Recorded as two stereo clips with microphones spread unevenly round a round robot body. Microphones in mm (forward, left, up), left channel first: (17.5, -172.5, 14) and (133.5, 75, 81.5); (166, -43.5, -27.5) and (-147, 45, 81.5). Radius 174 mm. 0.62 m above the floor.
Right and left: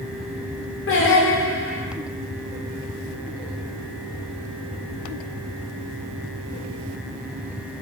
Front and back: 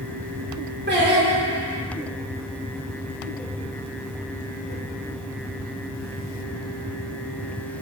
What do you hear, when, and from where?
0.9 s singing: 130° right, 1.4 m